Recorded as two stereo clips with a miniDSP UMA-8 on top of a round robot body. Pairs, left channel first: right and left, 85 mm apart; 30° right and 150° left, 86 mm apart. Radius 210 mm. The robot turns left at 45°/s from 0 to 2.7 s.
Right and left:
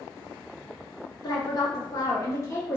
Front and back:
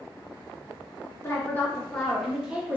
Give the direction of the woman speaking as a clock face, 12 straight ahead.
3 o'clock.